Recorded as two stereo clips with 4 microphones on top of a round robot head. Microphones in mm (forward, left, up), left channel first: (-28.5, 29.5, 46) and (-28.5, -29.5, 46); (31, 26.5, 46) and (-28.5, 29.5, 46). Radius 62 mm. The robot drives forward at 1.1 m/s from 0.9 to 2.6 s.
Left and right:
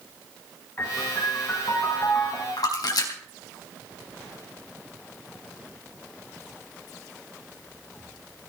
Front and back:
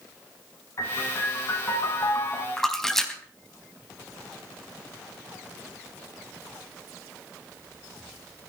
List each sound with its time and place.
0.8 s a piano: 25° left, 6.5 m; by 2.5 s 35° left, 5.5 m
2.6 s a splash: 80° left, 3.5 m